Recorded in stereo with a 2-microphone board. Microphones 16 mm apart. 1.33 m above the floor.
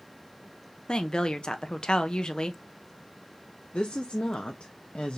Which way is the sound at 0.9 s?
50° left (ahead or behind).